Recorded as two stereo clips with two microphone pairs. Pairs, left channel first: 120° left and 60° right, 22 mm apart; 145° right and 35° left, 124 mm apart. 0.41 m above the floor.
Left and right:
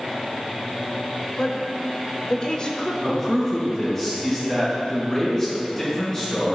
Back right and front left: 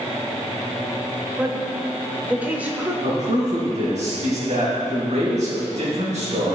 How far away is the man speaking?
About 3 m.